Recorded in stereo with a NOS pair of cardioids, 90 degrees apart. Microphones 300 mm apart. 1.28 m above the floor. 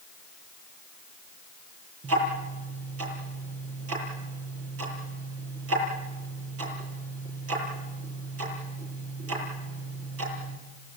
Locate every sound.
2.0 s ticking: 50° right, 8 m